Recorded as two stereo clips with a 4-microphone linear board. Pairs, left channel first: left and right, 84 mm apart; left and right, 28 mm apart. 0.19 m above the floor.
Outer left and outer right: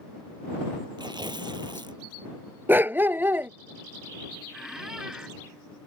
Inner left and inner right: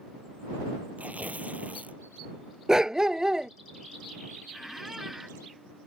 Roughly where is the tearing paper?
Right.